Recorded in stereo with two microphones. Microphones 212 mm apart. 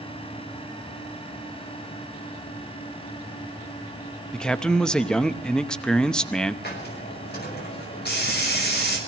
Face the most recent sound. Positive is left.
turn(degrees=50)  # may be behind; listen again after turning